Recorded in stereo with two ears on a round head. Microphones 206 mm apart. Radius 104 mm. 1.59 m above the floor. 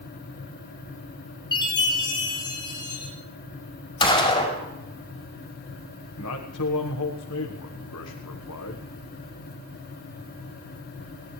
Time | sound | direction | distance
1.5 | a chime | 20° left (ahead or behind) | 6.5 m
4.0 | a gunshot | 20° left (ahead or behind) | 5 m
6.2 | a man speaking | 85° left | 1.4 m